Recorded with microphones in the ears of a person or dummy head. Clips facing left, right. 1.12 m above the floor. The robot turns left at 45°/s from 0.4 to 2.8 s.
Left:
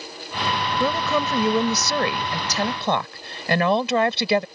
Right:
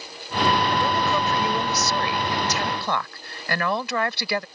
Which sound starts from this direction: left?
A woman speaking, at 0.8 s.